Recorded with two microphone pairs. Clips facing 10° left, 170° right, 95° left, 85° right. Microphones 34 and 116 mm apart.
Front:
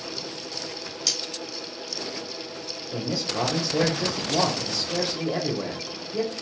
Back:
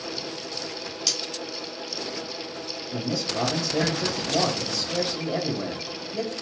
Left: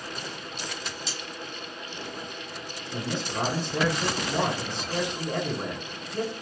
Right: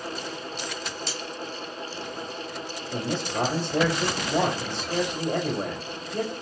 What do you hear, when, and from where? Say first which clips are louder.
1.1 s cutlery clinking: even, right 3 dB; 80° right, 1.6 m
2.9 s a man speaking: even, right 3 dB; 60° right, 1.7 m